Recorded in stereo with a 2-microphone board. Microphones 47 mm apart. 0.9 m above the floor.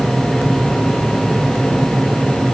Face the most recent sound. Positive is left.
No sound to turn to.